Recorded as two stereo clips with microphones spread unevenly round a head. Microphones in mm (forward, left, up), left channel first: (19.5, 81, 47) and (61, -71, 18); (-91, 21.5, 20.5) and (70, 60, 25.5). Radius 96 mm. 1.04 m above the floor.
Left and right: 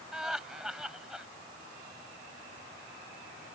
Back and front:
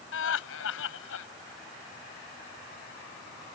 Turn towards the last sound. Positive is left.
turn(degrees=-165)